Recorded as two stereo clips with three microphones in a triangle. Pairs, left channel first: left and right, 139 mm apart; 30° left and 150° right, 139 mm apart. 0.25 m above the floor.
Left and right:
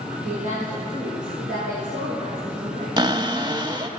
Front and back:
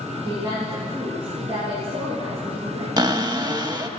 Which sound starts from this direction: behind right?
A cupboard door, at 3.0 s.